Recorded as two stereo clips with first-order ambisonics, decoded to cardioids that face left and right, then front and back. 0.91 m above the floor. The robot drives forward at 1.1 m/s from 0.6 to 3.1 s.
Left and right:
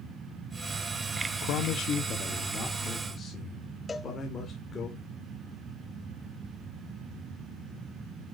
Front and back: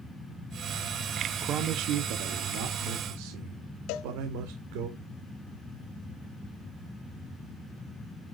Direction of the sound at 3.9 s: 15° left.